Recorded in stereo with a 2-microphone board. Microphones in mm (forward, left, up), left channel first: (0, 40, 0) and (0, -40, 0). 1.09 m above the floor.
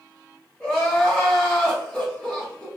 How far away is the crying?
About 1.3 m.